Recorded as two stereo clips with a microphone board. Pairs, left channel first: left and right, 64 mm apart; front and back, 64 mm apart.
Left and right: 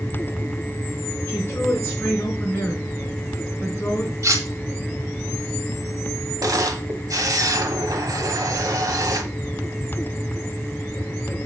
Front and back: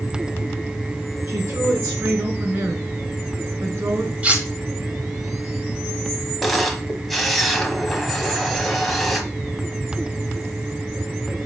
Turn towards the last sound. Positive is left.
turn(degrees=-90)